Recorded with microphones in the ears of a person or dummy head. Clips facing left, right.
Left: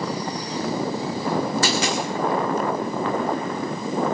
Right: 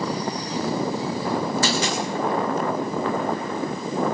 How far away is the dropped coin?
About 2.5 m.